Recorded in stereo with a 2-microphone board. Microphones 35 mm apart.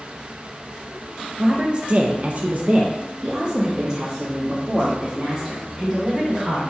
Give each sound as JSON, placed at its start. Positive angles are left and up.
{"t": 1.4, "sound": "a woman speaking", "side_deg": -20, "distance_m": 0.7}